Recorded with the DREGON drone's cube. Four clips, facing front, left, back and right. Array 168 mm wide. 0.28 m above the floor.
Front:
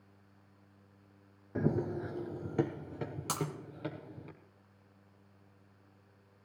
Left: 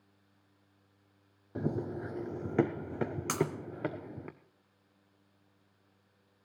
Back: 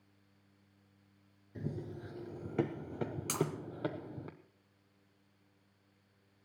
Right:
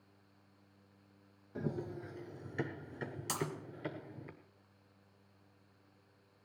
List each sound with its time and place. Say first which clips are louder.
1.6 s running footsteps: left 5 dB, front 10 dB; 25° left, 0.9 m; by 4.3 s 120° left, 2.0 m
3.3 s breaking glass: left 7 dB, back 2 dB; 75° left, 2.5 m